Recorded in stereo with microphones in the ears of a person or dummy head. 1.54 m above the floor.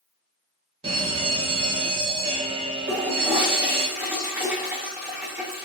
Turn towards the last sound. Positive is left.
turn(degrees=-10)  # may be behind; listen again after turning